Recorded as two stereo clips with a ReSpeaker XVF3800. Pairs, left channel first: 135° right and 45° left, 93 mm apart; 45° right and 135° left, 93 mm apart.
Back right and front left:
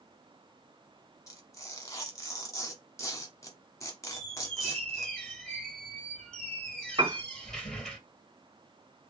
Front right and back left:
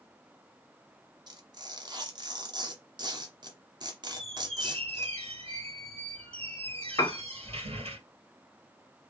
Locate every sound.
1.3 s tearing paper: 175° left, 1.2 m
4.1 s a squeak: 145° left, 2.5 m
7.0 s a piano: 5° left, 0.7 m